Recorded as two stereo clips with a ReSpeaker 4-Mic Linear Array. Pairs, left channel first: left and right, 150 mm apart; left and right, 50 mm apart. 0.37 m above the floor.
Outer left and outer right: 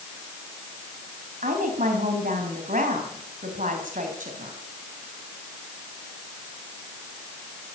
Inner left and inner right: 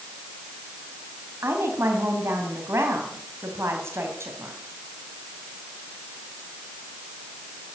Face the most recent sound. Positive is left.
turn(degrees=-60)  # may be behind; listen again after turning